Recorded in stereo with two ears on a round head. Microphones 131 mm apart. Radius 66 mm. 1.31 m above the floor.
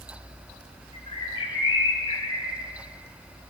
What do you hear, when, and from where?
0.9 s a bird: 35° left (ahead or behind), 3.5 m